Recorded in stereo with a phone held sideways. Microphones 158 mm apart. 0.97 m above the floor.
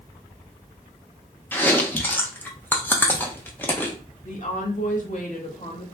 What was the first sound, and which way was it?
Chewing, 10° left (ahead or behind).